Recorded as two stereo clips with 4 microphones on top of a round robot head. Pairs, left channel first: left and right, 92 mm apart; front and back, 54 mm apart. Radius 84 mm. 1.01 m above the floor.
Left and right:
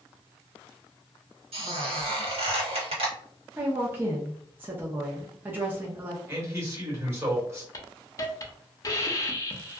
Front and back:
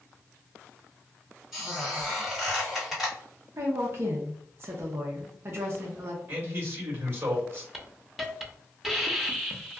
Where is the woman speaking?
155° right, 0.6 m.